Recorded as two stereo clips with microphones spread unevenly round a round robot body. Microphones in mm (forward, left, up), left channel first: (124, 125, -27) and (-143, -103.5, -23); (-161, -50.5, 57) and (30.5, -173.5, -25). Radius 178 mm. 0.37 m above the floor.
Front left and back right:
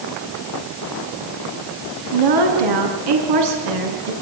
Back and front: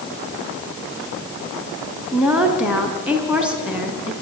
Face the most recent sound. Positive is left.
turn(degrees=-115)